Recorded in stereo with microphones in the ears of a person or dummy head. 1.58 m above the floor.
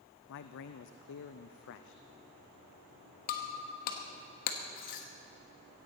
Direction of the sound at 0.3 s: 65° left (ahead or behind).